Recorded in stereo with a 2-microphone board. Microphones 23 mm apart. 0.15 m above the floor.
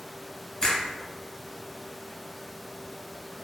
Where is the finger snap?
25° left (ahead or behind), 1.0 m.